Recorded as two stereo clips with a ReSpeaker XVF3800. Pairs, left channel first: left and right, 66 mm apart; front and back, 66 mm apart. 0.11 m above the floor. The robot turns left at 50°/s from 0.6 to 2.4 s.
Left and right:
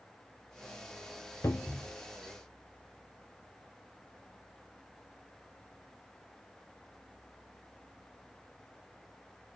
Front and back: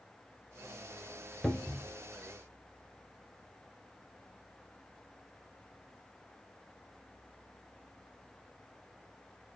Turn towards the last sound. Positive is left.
turn(degrees=45)